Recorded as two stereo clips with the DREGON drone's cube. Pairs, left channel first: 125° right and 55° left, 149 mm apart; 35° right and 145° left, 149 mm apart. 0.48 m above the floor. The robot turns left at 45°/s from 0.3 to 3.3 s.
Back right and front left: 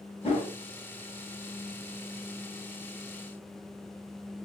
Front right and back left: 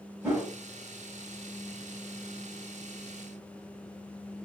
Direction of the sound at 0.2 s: 150° right.